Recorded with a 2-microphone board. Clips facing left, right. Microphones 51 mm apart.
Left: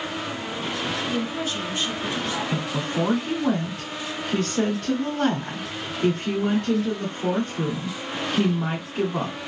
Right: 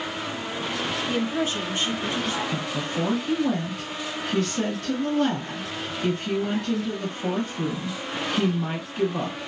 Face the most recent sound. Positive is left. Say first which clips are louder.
# left 2 dB
turn(degrees=45)  # may be behind; listen again after turning